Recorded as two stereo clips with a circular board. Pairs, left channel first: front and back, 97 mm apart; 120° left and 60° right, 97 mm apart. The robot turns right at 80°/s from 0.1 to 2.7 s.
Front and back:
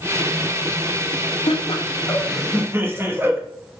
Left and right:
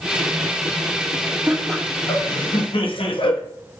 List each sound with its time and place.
1.5 s laughter: 15° left, 0.8 m; by 3.4 s 115° left, 0.8 m